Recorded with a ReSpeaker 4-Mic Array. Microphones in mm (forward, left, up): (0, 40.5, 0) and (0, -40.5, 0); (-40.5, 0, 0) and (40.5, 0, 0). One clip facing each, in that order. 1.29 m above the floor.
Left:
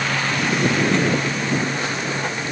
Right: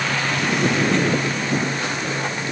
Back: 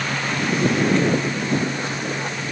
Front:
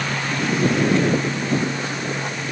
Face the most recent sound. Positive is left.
No sound to turn to.